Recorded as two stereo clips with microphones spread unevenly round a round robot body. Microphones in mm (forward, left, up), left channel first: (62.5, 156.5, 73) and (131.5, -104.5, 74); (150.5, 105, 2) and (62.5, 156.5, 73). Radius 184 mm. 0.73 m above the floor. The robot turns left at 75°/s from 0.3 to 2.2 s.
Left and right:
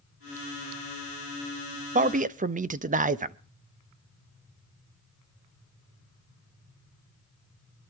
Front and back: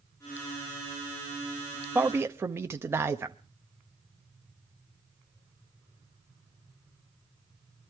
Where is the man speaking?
60° right, 0.6 m; by 3.4 s 80° right, 0.6 m.